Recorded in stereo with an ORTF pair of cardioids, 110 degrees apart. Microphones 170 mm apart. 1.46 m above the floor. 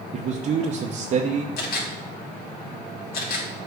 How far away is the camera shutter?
About 2.5 m.